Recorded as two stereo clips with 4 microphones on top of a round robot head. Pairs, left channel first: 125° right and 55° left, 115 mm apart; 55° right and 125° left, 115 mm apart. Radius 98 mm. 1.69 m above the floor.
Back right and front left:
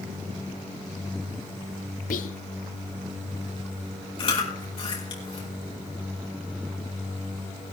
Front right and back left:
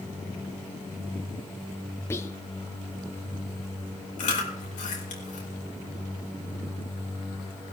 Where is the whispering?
125° right, 0.8 m.